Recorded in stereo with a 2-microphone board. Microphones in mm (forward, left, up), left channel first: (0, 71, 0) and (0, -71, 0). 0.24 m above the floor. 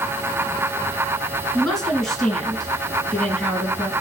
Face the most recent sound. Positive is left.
turn(degrees=5)  # may be behind; listen again after turning